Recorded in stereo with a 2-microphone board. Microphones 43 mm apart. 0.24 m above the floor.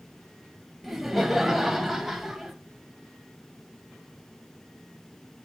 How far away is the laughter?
About 0.9 m.